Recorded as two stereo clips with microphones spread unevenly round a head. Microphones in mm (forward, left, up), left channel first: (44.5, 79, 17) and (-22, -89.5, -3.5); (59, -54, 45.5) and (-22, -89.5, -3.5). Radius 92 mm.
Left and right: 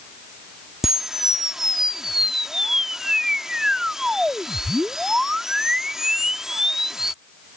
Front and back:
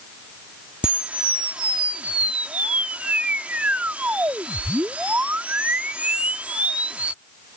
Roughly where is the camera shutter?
Ahead.